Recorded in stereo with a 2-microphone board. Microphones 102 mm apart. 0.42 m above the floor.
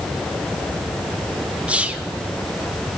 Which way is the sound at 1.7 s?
10° right (ahead or behind).